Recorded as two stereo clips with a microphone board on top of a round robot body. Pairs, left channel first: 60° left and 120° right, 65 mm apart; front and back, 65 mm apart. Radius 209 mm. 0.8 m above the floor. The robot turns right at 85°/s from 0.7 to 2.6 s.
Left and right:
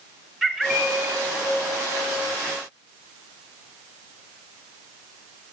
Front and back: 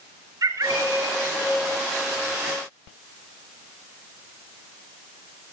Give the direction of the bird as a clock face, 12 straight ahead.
7 o'clock.